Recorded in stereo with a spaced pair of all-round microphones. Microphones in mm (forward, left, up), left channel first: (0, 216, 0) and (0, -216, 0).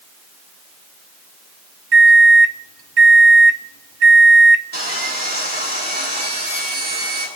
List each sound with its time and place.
1.9 s a microwave: 65° right (ahead or behind), 0.6 m
4.7 s sawing: 25° right (ahead or behind), 6 m